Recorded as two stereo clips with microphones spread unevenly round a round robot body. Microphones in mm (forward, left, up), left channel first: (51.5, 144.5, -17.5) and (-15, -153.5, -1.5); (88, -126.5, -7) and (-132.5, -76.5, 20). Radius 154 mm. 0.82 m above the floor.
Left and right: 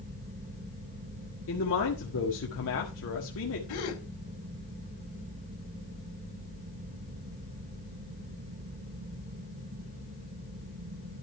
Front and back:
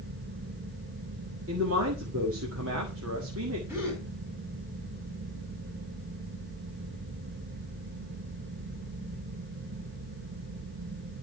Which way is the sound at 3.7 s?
85° left.